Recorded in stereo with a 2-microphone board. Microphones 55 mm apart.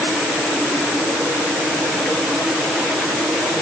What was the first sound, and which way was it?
Only background noise.